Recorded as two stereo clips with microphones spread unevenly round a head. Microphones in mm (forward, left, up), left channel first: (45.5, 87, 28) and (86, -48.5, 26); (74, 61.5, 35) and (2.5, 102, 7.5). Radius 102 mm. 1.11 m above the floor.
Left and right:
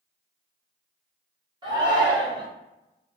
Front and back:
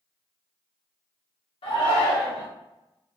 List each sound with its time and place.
1.6 s a shout: 15° right, 1.6 m